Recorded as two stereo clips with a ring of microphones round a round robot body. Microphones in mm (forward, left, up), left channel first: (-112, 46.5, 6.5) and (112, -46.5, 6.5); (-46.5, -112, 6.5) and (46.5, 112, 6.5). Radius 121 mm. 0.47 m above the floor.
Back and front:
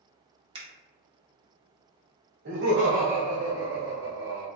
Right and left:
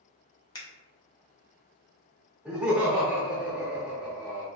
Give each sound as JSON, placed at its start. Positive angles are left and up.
{"t": 0.6, "sound": "a finger snap", "azimuth_deg": -60, "distance_m": 0.6}
{"t": 2.5, "sound": "laughter", "azimuth_deg": -20, "distance_m": 0.9}